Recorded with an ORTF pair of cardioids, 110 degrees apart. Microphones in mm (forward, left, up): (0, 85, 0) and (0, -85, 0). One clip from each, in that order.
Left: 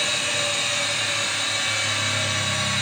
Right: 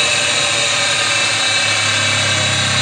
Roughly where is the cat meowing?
No cat meowing in this recording.